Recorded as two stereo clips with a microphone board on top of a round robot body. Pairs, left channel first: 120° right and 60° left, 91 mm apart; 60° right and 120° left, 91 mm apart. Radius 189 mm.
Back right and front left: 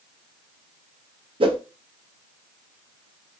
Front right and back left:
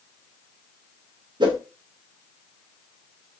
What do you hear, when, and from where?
1.4 s a whoosh: 85° left, 0.7 m